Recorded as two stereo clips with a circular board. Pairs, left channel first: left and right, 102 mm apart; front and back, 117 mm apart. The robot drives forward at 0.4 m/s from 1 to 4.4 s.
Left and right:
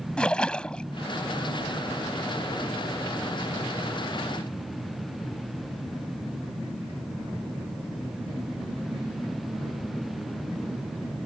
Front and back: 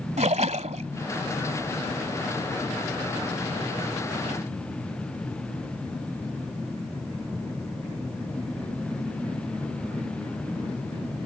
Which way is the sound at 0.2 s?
170° left.